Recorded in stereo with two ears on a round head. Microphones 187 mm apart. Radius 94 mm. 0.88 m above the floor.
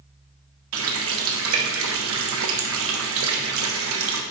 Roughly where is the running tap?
Right.